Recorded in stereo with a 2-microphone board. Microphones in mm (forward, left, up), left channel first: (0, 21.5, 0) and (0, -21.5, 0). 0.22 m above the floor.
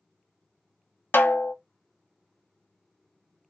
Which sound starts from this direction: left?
A snare drum, at 1.1 s.